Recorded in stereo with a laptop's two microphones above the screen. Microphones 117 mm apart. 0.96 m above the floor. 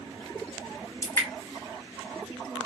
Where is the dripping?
25° left (ahead or behind), 1.2 m.